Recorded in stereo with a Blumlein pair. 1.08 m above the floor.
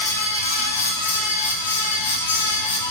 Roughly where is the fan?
Left.